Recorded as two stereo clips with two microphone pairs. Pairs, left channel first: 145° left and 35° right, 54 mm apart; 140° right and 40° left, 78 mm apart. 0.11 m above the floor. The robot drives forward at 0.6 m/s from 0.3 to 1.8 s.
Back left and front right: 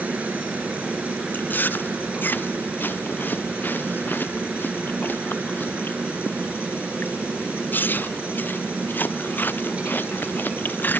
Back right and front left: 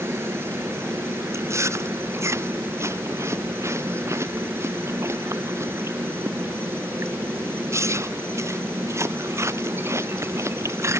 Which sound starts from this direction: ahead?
A helicopter, at 0.0 s.